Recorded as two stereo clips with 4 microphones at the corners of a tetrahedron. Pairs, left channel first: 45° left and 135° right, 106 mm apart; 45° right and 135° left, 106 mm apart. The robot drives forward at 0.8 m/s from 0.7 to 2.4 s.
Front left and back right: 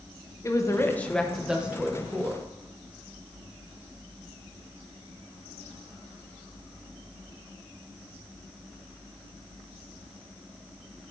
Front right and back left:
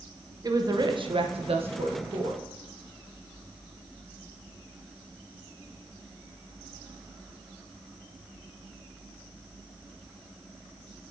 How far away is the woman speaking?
About 0.7 m.